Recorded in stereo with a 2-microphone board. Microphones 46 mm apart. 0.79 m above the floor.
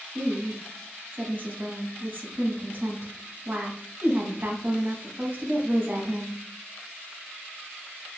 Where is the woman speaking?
45° right (ahead or behind), 1.0 m.